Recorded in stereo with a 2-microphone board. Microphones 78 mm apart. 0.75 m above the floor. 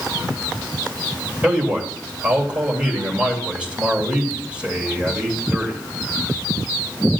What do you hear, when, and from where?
1.4 s a man speaking: 15° right (ahead or behind), 2.5 m